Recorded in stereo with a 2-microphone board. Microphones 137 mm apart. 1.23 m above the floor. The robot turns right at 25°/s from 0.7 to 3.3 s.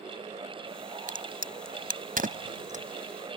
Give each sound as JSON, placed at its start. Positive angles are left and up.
{"t": 1.1, "sound": "a crack", "side_deg": -75}